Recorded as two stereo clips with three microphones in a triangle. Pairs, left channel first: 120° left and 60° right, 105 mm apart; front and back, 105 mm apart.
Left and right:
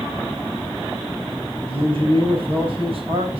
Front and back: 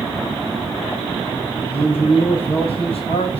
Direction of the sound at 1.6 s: 30° right.